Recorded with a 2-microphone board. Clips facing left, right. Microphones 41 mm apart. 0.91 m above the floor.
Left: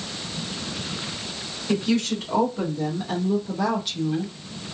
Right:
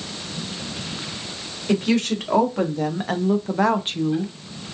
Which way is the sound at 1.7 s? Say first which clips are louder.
Right 3 dB; 70° right (ahead or behind).